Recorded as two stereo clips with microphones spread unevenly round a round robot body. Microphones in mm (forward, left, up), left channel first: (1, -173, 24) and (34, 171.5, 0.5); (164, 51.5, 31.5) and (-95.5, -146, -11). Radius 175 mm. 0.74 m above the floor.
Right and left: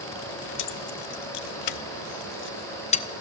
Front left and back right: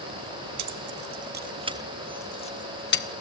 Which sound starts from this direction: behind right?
Keys jangling, at 0.6 s.